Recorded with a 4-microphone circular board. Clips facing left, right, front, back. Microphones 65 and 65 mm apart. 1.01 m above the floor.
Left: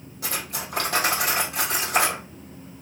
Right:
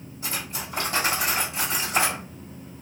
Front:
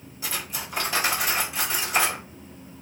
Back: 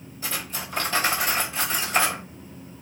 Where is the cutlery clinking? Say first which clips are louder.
Left 2 dB, back 1 dB; 80° left, 1.6 m.